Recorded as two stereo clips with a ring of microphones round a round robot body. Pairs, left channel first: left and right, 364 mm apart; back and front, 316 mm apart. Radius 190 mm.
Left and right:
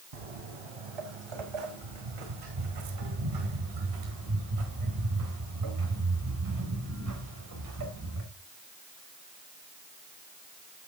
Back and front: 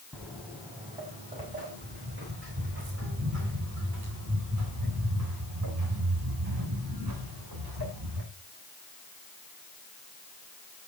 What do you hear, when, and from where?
0.1 s footsteps: 90° right, 2.5 m; by 8.2 s 35° right, 6.5 m